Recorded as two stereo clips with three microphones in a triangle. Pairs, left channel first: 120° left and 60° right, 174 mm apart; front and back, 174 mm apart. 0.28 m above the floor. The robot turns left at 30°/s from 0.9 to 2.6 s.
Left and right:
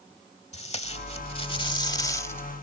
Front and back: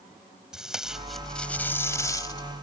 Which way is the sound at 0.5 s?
95° left.